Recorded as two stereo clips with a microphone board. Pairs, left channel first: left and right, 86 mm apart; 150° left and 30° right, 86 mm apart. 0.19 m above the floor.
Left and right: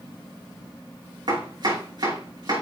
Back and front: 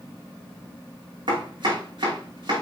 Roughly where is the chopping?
Ahead right.